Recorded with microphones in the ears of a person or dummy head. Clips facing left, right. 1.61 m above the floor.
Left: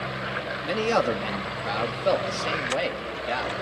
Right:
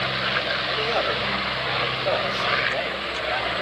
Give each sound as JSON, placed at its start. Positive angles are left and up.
{"t": 0.6, "sound": "a man speaking", "side_deg": 70, "distance_m": 3.0}